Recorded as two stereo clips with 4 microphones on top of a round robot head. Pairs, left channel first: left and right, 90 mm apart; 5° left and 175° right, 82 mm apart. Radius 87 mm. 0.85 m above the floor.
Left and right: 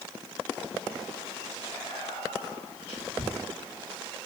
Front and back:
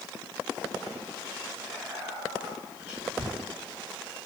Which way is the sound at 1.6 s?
115° left.